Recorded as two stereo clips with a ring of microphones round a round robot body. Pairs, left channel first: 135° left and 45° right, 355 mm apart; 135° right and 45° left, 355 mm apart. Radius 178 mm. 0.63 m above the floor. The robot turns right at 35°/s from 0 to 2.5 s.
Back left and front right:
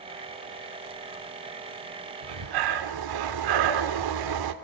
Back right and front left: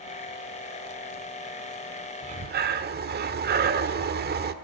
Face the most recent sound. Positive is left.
turn(degrees=-20)